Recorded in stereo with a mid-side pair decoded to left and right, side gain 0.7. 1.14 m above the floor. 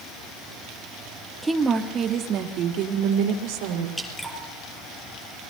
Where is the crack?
No crack in this recording.